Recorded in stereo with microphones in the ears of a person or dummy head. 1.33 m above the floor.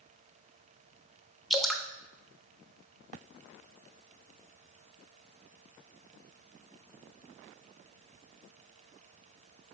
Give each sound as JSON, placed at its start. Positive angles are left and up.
{"t": 1.5, "sound": "dripping", "side_deg": 0, "distance_m": 0.6}